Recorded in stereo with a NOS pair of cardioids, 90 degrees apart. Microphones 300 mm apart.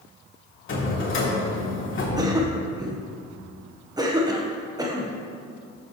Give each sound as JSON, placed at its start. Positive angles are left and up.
{"t": 0.7, "sound": "a drawer", "azimuth_deg": 40, "distance_m": 3.0}
{"t": 2.2, "sound": "a cough", "azimuth_deg": -15, "distance_m": 1.2}